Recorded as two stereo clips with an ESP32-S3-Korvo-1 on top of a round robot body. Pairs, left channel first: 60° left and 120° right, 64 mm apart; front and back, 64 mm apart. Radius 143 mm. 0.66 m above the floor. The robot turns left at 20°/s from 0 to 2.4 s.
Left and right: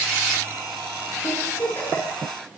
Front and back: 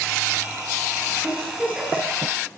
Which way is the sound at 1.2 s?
115° left.